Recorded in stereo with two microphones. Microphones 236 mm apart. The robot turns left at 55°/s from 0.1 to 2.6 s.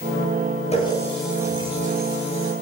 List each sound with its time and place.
0.7 s a running tap: 30° left, 10 m; by 2.5 s 70° right, 10 m